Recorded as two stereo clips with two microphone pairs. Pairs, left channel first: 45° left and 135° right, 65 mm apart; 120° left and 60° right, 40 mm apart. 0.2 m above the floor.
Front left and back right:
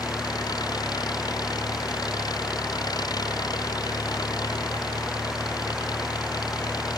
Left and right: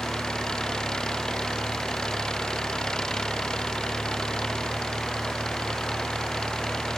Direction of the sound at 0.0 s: 45° left.